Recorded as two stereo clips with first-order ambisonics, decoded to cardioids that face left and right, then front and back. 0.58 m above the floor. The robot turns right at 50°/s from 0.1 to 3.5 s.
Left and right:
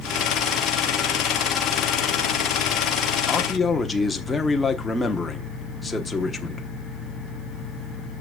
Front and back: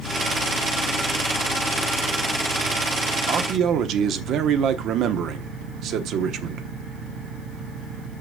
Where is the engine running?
10° right, 1.9 m; by 8.2 s 160° left, 1.9 m.